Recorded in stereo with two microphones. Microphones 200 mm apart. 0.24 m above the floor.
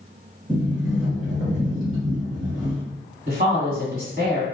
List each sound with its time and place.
0.5 s a sliding door: 5° right (ahead or behind), 1.5 m
3.3 s a woman speaking: 45° right (ahead or behind), 1.9 m